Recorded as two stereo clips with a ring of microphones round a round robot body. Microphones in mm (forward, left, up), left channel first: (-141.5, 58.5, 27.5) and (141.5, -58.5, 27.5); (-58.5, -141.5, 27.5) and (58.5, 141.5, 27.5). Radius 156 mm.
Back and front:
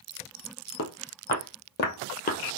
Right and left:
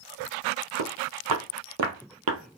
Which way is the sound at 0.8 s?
100° left.